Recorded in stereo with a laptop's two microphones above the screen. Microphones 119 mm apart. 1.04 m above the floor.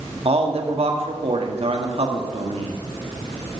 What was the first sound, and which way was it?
A man speaking, 55° right (ahead or behind).